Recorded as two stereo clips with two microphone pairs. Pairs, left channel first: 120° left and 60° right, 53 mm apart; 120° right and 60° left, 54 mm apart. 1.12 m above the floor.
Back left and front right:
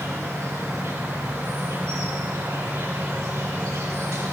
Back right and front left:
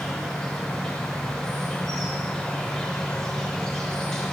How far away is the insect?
About 2.5 m.